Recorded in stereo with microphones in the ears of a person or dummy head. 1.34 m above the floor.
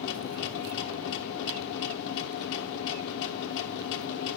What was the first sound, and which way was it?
A machine running, 65° left (ahead or behind).